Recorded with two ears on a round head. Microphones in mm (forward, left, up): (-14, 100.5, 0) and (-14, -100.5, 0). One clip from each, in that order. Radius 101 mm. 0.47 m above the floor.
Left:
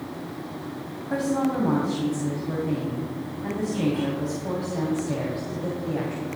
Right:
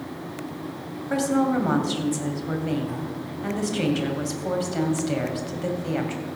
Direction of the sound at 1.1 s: 70° right (ahead or behind).